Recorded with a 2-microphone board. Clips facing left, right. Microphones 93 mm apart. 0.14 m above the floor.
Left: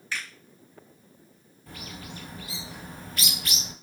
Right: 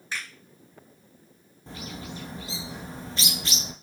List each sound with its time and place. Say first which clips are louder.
0.1 s a finger snap: even; 20° right (ahead or behind), 1.7 m
1.7 s a bird: right 3 dB; 25° right (ahead or behind), 0.5 m